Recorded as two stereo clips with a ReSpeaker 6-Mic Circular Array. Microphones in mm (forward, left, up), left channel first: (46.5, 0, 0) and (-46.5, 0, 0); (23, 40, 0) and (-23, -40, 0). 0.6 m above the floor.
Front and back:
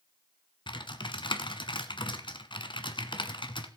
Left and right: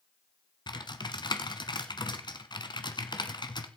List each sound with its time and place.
0.7 s typing on a keyboard: 25° left, 1.2 m